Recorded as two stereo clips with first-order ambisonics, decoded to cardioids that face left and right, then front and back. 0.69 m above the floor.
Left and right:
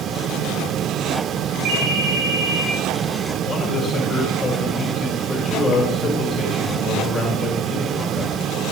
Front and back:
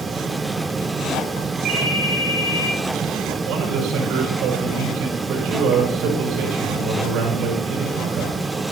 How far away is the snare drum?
No snare drum in this recording.